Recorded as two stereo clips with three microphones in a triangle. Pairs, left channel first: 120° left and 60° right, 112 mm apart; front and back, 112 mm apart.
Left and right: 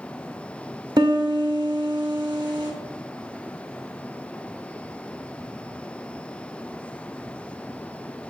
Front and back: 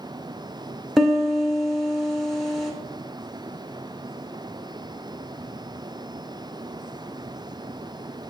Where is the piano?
95° right, 0.9 m.